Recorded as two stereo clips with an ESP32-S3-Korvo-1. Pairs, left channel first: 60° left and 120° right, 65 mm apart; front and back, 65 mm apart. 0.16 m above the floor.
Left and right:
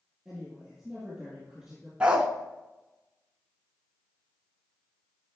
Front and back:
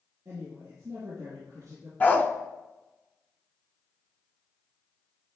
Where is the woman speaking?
155° left, 4 m.